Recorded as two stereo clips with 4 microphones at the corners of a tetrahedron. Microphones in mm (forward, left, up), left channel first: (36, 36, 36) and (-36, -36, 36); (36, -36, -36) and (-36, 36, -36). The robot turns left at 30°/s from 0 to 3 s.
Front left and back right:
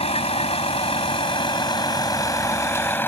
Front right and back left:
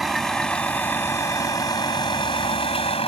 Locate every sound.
0.0 s a vehicle: 45° left; by 3.1 s 25° right